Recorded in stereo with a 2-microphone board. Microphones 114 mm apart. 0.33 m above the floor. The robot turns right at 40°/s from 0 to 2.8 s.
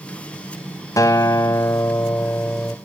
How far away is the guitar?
About 0.7 m.